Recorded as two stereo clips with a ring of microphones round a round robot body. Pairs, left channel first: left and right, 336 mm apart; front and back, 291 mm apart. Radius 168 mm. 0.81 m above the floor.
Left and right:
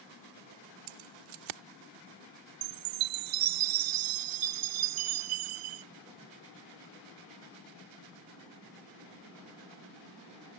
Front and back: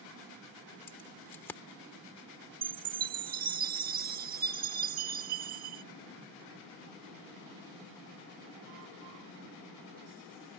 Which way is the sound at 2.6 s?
115° right.